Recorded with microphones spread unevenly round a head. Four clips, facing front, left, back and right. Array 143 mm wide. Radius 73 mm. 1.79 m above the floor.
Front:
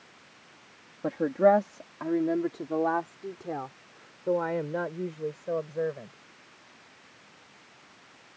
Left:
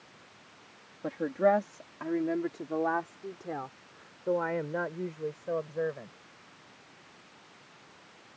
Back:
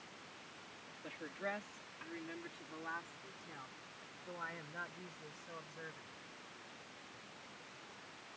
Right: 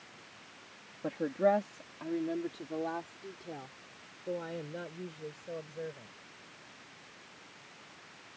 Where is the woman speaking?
5° left; by 6.1 s 30° left.